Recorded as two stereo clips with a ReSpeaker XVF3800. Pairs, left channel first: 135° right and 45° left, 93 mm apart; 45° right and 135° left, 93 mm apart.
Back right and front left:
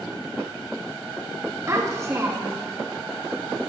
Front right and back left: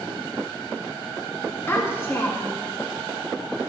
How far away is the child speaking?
About 0.6 m.